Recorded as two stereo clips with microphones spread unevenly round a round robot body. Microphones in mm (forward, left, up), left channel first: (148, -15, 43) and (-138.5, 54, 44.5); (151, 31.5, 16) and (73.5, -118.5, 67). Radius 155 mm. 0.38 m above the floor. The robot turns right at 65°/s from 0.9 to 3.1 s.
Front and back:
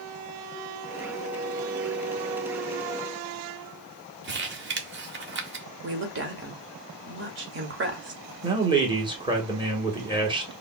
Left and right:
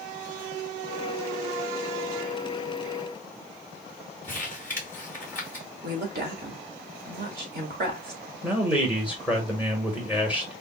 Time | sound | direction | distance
4.2 | crumpling | 125° left | 1.0 m
5.8 | a woman speaking | 155° right | 1.3 m
8.4 | a man speaking | 125° left | 1.4 m